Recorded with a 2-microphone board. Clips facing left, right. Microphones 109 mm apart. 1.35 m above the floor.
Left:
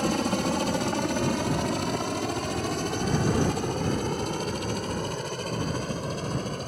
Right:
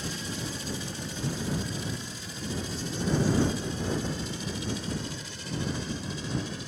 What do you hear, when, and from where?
0.0 s a helicopter: 65° left (ahead or behind); by 6.7 s 50° left (ahead or behind)